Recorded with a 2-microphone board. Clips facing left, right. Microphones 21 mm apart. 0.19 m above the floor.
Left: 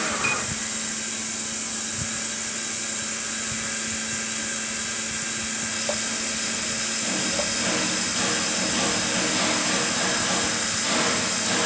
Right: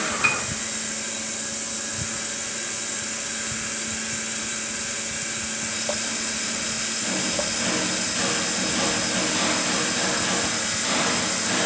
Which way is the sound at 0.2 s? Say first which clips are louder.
Right 5 dB; 20° right (ahead or behind).